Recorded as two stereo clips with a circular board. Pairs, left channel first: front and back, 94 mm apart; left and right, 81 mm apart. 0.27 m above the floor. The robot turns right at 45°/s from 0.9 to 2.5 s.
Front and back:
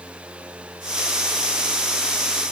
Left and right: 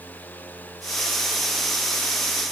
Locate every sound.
Only background noise.